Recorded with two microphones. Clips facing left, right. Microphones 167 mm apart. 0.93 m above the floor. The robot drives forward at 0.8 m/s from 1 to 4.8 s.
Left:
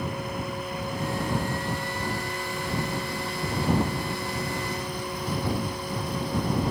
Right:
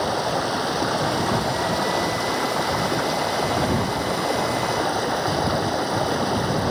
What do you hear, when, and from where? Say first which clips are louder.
0.0 s running water: right 9 dB; 85° right; by 6.7 s 80° right